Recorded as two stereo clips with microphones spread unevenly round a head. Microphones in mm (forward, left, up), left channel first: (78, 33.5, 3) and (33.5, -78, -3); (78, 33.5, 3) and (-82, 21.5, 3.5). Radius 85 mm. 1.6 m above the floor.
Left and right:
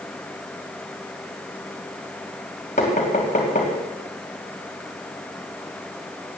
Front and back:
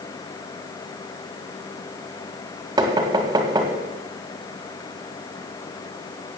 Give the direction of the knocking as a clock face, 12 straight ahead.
8 o'clock.